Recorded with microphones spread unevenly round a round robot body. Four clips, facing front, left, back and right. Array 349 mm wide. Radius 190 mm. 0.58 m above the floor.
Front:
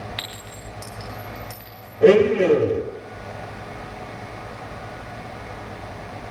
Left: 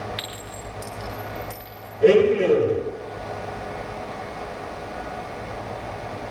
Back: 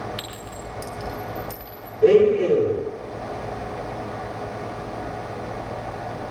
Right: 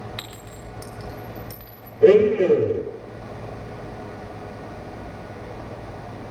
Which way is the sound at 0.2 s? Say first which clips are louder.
Left 4 dB, back 3 dB; 85° right.